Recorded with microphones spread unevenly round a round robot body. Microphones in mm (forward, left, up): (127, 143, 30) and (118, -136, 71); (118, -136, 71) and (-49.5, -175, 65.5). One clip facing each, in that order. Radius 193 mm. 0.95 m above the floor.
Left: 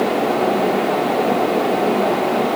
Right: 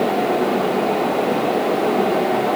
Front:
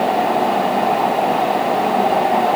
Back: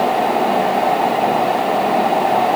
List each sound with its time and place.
Only background noise.